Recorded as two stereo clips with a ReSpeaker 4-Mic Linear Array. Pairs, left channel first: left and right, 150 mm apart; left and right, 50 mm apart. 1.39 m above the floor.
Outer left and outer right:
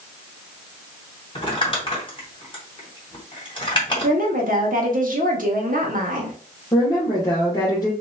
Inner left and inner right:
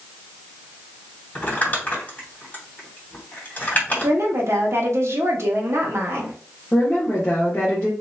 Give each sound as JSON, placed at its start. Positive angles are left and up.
{"t": 1.4, "sound": "crumpling", "side_deg": 35, "distance_m": 2.5}
{"t": 4.0, "sound": "a woman speaking", "side_deg": -65, "distance_m": 1.5}
{"t": 6.7, "sound": "a woman speaking", "side_deg": 25, "distance_m": 1.6}